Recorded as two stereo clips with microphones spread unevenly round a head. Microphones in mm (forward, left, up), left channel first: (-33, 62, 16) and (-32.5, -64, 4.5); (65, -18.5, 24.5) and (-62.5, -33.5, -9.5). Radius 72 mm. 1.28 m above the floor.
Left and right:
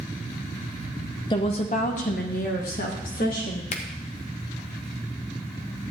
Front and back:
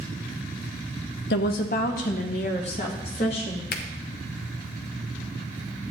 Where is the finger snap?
40° left, 1.1 m.